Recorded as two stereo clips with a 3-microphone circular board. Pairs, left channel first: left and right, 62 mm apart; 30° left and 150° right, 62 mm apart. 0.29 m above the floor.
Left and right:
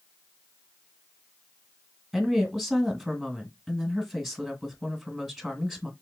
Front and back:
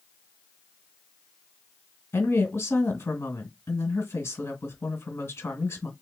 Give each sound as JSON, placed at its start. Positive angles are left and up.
{"t": 2.1, "sound": "a woman speaking", "azimuth_deg": 0, "distance_m": 1.9}